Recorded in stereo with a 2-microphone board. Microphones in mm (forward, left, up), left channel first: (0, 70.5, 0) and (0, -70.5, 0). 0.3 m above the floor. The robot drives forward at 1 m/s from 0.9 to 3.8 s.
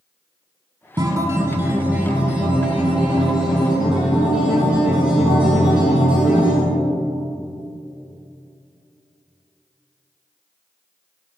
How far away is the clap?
I don't hear a clap.